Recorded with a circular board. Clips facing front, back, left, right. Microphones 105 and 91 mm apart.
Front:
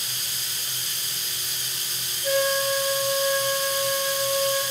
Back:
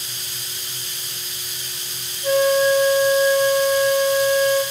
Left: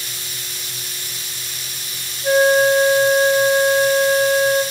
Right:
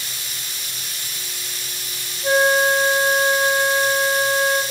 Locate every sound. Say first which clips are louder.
2.2 s a flute: back 7 dB, left 3 dB; 130° right, 1.3 m